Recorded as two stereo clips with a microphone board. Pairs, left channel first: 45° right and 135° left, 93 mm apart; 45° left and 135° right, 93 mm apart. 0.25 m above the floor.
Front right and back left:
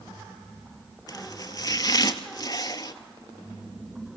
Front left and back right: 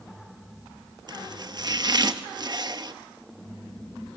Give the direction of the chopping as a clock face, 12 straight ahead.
3 o'clock.